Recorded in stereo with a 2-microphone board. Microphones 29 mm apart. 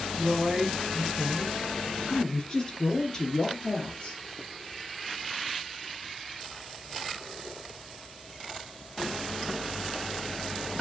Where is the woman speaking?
15° right (ahead or behind), 1.2 m; by 4.2 s 35° left (ahead or behind), 2 m.